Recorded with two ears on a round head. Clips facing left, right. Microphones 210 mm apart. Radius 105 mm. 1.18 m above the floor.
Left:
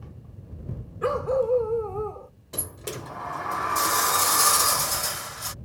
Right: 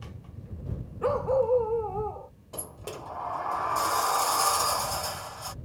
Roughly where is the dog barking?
Left.